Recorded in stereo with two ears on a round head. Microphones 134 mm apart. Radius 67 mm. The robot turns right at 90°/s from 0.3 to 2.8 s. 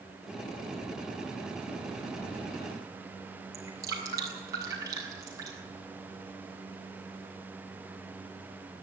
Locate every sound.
3.5 s dripping: 25° right (ahead or behind), 6.5 m